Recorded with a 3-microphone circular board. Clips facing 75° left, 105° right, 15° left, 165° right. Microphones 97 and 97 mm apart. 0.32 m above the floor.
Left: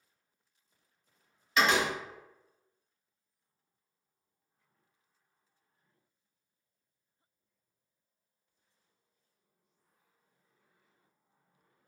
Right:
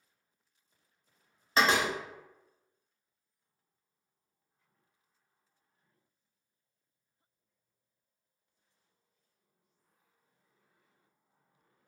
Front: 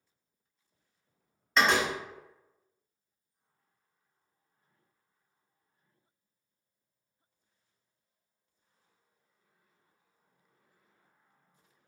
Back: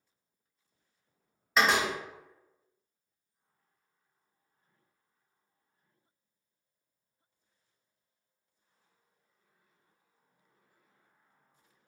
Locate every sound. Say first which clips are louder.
1.6 s a door slam: even, even; 85° right, 0.7 m